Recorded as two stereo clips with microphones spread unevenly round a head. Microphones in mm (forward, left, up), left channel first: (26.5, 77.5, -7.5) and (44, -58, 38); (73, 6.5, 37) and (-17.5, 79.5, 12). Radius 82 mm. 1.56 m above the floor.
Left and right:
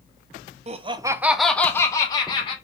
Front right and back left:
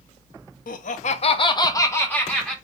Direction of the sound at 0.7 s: 35° right.